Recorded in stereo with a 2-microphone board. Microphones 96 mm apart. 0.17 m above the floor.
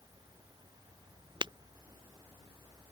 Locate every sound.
1.4 s breaking glass: 55° right (ahead or behind)